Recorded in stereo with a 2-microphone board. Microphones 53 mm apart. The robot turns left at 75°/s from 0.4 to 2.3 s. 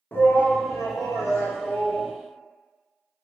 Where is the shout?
140° left, 0.6 m; by 2.1 s 10° left, 0.6 m.